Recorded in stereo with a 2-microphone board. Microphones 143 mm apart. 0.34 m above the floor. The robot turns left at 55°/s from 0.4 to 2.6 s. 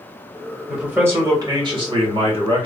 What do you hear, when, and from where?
0.7 s a man speaking: 5° right, 1.2 m; by 2.7 s 110° right, 1.2 m